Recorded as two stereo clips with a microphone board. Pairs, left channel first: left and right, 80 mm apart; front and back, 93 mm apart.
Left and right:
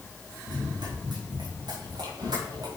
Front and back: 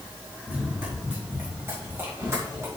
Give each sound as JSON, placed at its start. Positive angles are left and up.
{"t": 0.5, "sound": "running footsteps", "azimuth_deg": -110, "distance_m": 6.5}